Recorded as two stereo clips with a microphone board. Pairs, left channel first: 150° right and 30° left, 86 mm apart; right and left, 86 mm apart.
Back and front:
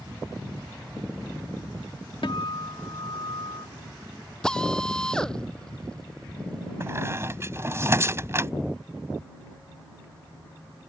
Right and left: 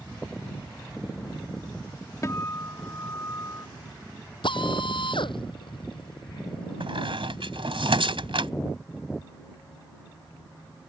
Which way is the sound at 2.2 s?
140° right.